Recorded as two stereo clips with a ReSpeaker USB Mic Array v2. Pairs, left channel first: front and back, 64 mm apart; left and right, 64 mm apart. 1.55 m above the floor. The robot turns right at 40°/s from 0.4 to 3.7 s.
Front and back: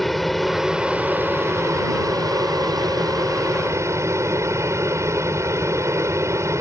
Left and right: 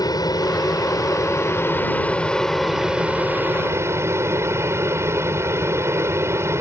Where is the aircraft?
90° left; by 6.6 s 140° right.